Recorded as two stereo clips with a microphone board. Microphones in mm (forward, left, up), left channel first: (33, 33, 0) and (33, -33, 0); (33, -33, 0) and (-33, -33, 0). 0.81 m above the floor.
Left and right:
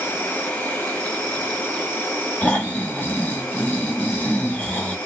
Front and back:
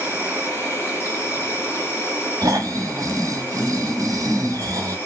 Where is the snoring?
150° left, 1.3 m.